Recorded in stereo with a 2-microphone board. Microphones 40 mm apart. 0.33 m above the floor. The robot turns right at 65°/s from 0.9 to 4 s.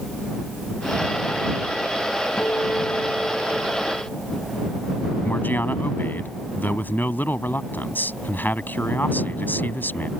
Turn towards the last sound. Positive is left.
turn(degrees=55)  # may be behind; listen again after turning